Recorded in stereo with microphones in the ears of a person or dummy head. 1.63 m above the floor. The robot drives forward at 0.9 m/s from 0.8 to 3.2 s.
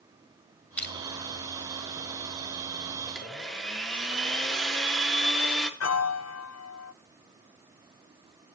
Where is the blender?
Centre (ahead or behind), 1.8 m.